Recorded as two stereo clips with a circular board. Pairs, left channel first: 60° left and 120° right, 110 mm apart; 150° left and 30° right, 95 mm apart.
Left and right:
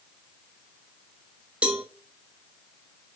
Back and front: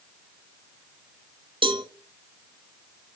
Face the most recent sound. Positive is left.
turn(degrees=-40)